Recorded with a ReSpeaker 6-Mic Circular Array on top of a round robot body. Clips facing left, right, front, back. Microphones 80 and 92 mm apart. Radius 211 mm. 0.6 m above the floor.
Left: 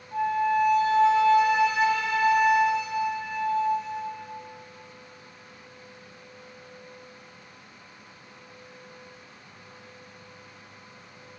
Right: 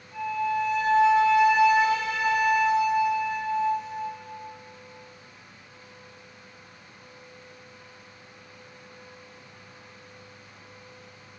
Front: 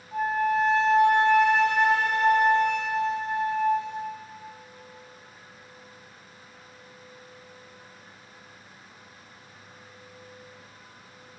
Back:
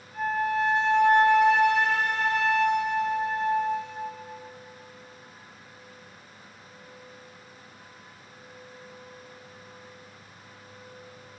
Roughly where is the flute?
Ahead left.